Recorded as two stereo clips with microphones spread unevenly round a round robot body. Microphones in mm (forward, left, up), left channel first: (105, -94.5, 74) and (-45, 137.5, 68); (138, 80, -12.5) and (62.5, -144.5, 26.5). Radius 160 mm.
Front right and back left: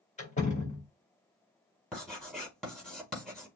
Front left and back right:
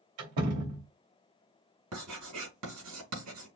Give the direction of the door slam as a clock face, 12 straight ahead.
4 o'clock.